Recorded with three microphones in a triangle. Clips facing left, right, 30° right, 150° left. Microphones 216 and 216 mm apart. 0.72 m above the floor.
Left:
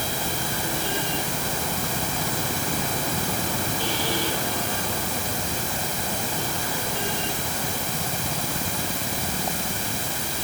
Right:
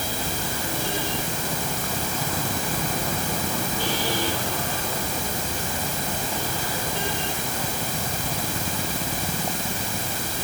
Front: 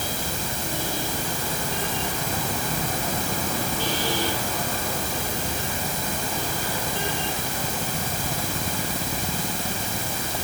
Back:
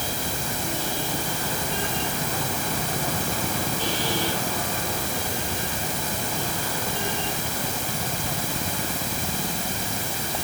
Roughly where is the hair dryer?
No hair dryer in this recording.